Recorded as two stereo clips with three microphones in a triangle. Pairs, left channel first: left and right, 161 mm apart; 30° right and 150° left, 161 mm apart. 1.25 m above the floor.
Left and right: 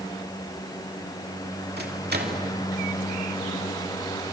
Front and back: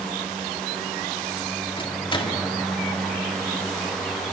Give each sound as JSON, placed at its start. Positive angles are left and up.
{"t": 1.8, "sound": "a microwave", "azimuth_deg": -90, "distance_m": 2.5}